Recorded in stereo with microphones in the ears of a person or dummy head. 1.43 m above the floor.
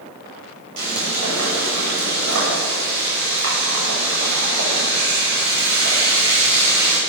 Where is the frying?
70° right (ahead or behind), 9.5 m.